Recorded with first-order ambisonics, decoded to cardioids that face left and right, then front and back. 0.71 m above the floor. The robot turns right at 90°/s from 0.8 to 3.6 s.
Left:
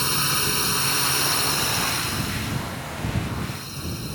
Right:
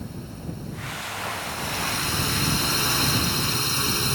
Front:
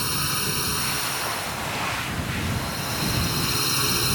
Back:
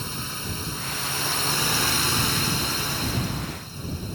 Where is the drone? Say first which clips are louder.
Left 17 dB, front 7 dB; 70° left; by 4.1 s 40° right.